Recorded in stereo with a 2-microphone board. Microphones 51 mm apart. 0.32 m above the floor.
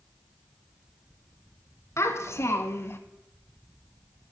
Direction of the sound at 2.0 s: 60° left (ahead or behind).